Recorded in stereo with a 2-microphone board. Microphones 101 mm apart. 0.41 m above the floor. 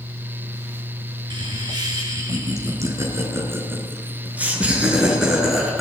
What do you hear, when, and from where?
1.3 s laughter: 45° right (ahead or behind), 7 m; by 5.8 s centre (ahead or behind), 6.5 m